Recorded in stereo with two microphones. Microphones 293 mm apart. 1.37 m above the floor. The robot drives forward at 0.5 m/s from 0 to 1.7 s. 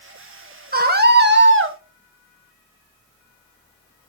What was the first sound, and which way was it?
A scream, 30° right (ahead or behind).